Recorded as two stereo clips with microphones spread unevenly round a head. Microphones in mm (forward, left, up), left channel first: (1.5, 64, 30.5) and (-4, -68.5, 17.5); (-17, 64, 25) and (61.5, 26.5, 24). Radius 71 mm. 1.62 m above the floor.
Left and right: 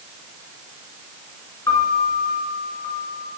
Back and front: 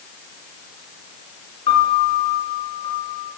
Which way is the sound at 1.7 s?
150° left.